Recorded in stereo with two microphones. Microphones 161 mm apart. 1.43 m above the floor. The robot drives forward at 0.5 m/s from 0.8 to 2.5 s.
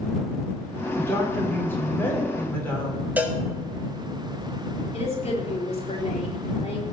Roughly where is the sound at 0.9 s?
Centre.